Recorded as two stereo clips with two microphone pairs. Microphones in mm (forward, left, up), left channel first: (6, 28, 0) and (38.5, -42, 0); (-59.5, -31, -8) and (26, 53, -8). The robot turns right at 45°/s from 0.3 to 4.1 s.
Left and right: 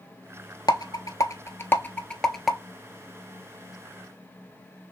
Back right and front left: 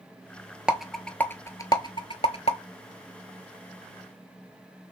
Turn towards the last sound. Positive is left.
turn(degrees=-80)